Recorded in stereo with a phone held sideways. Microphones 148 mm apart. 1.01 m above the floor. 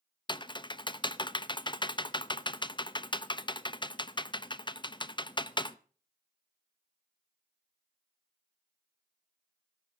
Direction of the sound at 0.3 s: 30° left (ahead or behind).